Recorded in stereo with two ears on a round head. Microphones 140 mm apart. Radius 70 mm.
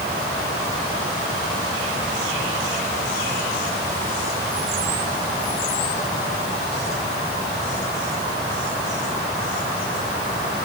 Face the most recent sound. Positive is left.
No sound to turn to.